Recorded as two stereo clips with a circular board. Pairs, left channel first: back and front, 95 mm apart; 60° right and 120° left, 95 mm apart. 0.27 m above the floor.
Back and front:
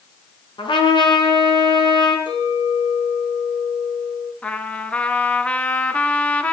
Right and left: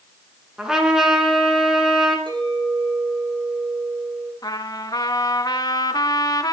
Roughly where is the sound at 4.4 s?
Right.